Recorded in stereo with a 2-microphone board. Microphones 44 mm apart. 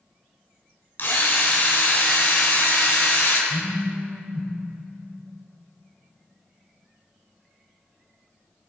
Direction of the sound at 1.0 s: 55° left (ahead or behind).